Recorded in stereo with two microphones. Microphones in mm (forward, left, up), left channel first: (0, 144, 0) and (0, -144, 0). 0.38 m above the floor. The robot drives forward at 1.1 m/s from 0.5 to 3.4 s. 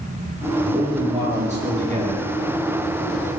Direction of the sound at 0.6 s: 20° right (ahead or behind).